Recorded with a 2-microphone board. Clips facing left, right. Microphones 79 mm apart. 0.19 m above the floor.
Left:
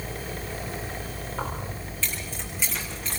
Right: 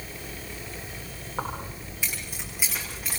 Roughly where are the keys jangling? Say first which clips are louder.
Right 1 dB; centre.